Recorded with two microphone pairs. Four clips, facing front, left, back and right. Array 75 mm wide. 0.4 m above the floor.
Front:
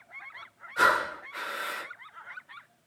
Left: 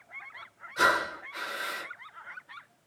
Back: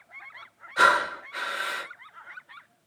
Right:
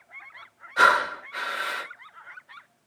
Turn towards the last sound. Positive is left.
turn(degrees=-120)